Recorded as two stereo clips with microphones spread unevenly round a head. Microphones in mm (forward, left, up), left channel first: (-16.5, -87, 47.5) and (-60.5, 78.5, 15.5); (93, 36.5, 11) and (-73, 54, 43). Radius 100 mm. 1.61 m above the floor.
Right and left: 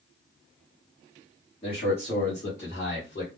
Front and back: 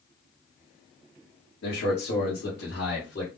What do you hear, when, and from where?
1.6 s a man speaking: 10° right, 1.3 m; by 3.3 s 35° right, 2.5 m